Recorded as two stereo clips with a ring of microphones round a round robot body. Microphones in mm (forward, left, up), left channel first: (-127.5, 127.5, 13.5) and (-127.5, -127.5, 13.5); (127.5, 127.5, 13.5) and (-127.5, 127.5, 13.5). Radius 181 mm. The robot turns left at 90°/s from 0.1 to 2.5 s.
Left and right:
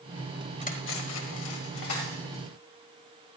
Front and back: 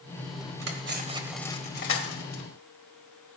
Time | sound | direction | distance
0.6 | cutlery clinking | 155° left | 1.9 m